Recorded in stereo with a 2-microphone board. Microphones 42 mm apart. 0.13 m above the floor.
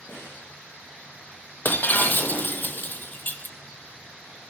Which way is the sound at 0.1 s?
60° left (ahead or behind).